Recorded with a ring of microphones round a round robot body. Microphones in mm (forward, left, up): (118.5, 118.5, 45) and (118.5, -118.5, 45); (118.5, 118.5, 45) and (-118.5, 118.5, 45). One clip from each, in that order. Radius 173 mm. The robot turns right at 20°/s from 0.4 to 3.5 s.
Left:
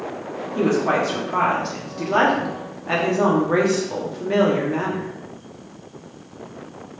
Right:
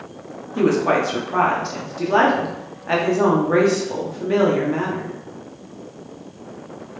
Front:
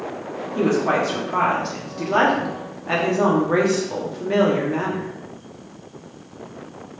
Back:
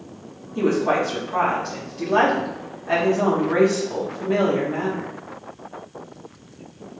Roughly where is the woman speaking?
Right.